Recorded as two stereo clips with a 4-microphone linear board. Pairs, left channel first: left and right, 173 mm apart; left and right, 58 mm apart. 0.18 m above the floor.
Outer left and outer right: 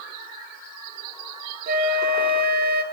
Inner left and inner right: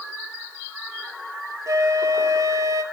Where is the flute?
70° right (ahead or behind), 0.6 m.